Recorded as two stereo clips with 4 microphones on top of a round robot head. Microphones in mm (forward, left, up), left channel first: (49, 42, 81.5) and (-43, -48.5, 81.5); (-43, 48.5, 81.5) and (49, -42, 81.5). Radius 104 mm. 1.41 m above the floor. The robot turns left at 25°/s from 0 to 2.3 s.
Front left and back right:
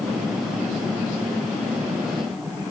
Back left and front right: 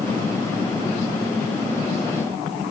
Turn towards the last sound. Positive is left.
No sound to turn to.